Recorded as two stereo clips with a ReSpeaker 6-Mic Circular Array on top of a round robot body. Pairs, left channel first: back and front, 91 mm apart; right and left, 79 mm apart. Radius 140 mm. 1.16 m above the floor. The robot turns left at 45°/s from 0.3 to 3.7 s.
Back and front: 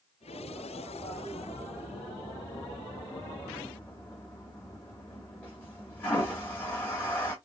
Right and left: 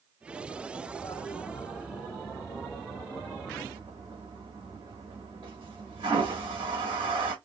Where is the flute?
I don't hear a flute.